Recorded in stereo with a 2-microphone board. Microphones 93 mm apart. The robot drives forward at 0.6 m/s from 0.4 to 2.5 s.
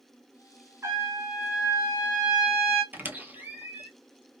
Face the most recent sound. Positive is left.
turn(degrees=-20)  # may be behind; listen again after turning